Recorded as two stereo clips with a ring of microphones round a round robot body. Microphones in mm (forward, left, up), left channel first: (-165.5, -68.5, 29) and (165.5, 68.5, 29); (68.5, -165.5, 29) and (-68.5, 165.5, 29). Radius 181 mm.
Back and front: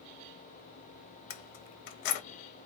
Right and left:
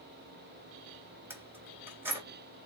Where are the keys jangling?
165° right, 0.6 m.